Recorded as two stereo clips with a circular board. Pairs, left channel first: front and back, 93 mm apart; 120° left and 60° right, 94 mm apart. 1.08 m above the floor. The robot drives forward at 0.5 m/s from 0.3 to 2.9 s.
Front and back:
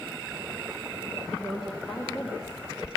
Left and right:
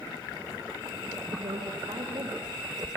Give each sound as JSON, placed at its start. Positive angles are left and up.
{"t": 1.3, "sound": "a woman speaking", "azimuth_deg": -90, "distance_m": 4.0}